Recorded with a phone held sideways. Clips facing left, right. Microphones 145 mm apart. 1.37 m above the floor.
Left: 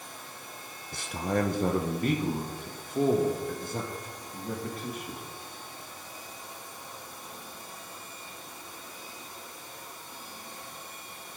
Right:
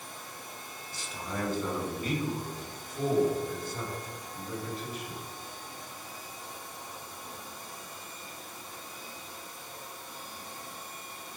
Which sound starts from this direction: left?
A man speaking, at 0.9 s.